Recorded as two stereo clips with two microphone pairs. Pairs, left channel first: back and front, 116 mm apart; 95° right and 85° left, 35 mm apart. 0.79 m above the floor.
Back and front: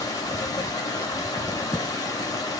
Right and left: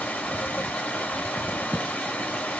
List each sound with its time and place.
0.0 s running water: 125° right, 1.3 m